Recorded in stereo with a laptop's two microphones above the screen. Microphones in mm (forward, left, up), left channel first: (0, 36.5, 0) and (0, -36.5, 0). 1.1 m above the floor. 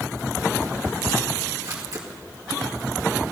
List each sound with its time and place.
1.6 s a camera shutter: 55° right (ahead or behind), 2 m